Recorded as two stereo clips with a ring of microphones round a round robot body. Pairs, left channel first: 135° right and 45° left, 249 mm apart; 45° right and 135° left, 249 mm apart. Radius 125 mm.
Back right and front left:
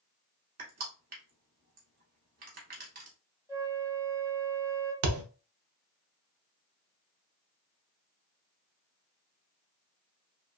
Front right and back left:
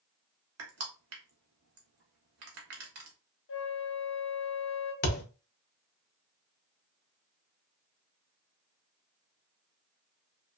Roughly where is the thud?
Ahead.